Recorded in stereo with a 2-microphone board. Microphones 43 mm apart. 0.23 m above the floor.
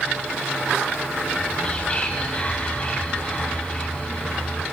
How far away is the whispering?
About 1.6 m.